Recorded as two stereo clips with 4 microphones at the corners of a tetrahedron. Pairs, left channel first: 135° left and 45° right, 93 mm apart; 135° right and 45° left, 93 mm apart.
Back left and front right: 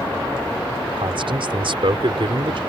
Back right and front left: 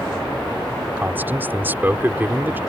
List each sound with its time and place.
1.0 s a man speaking: 25° right